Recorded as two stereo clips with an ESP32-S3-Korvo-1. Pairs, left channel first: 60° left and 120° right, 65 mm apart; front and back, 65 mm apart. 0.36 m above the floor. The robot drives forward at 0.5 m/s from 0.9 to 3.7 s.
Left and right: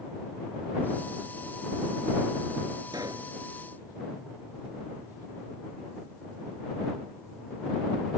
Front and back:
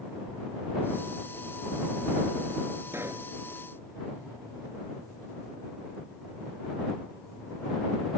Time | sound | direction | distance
2.9 | a pop | 130° right | ?